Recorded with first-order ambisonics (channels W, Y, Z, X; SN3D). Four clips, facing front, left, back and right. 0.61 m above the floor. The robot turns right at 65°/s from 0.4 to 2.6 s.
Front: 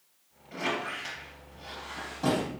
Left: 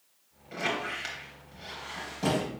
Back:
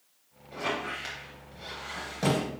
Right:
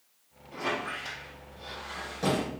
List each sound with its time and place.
0.5 s a squeak: 75° left, 3 m; by 2.5 s 160° right, 3 m